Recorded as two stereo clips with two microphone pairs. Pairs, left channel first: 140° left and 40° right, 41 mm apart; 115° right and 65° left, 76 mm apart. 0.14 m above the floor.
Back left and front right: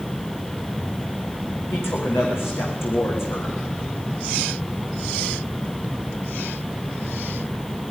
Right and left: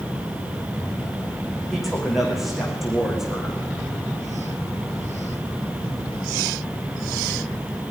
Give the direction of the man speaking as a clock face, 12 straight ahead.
7 o'clock.